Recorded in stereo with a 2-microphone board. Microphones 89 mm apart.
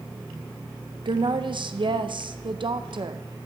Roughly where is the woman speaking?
Right.